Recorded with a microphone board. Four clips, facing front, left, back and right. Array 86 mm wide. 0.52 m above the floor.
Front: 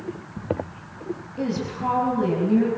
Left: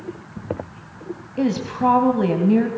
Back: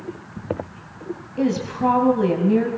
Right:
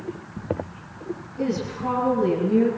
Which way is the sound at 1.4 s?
110° left.